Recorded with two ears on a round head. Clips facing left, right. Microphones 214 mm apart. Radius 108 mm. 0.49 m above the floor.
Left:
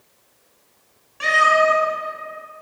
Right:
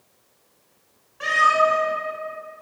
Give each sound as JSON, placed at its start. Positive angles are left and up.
{"t": 1.2, "sound": "a cat meowing", "side_deg": 40, "distance_m": 1.7}